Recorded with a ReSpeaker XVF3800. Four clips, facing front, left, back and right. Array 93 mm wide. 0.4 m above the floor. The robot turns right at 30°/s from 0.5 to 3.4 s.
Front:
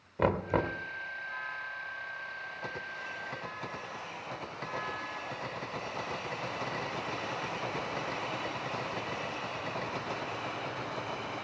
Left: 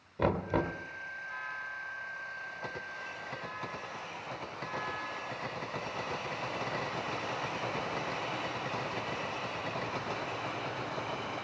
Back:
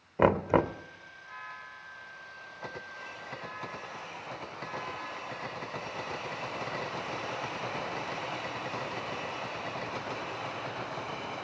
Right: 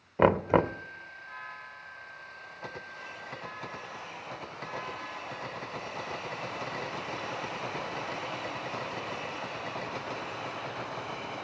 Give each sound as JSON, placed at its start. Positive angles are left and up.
{"t": 0.2, "sound": "knocking", "azimuth_deg": -120, "distance_m": 0.7}